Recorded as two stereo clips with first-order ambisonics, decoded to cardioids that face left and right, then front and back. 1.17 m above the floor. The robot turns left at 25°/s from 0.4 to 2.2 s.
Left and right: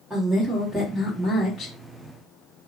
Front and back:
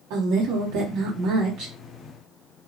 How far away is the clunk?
I don't hear a clunk.